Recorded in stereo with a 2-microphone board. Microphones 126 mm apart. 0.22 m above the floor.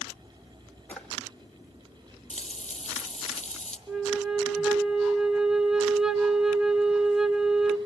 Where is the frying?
65° left (ahead or behind), 1.4 m.